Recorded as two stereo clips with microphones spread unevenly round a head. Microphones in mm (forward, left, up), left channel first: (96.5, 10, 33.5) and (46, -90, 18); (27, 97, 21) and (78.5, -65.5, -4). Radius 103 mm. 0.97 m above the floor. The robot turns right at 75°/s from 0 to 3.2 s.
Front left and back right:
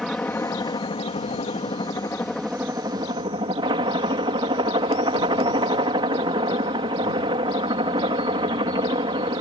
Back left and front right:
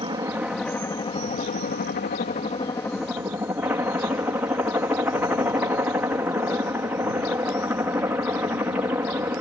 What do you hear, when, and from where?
0.0 s a helicopter: 25° right; by 9.4 s 145° right